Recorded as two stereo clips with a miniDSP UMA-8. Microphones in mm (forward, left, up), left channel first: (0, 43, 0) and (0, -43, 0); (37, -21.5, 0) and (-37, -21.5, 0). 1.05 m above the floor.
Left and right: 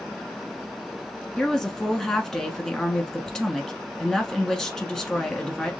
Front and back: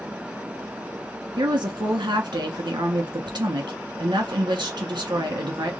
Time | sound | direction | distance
1.4 | a woman speaking | 175° left | 1.4 m